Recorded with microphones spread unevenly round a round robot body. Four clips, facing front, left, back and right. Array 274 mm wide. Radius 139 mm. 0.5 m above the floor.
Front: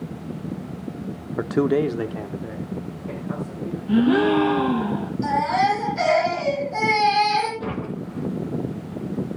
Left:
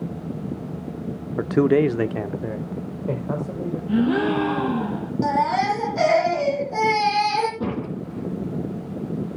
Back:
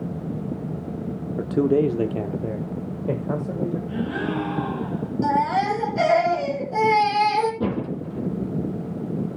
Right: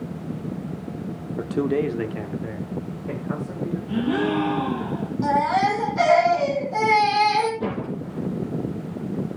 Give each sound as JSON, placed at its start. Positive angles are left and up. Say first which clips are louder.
{"t": 1.4, "sound": "a man speaking", "louder": "left 5 dB, even", "azimuth_deg": 55, "distance_m": 0.7}
{"t": 3.9, "sound": "a gasp", "louder": "left 3 dB, front 9 dB", "azimuth_deg": 25, "distance_m": 3.0}
{"t": 5.2, "sound": "a baby crying", "louder": "right 1 dB, front 1 dB", "azimuth_deg": 140, "distance_m": 3.0}
{"t": 7.6, "sound": "a door slam", "louder": "even, back 3 dB", "azimuth_deg": 150, "distance_m": 4.5}